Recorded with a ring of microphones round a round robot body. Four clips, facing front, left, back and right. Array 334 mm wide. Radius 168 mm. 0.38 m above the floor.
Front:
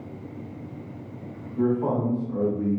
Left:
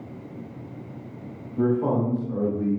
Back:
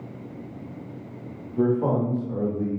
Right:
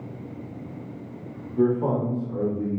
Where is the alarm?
No alarm in this recording.